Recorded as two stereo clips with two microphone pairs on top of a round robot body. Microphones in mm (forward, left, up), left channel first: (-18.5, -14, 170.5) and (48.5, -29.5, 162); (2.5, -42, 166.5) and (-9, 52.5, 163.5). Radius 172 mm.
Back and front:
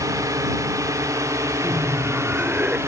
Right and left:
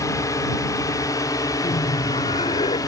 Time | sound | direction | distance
0.0 | a drone | 30° right | ?
1.6 | laughter | 80° right | ?